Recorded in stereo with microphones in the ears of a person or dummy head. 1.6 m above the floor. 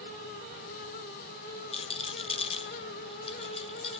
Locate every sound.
1.7 s a rattle: 35° left (ahead or behind), 0.6 m